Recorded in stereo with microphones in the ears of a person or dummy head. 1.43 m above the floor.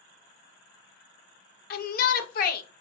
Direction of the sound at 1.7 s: 50° left (ahead or behind).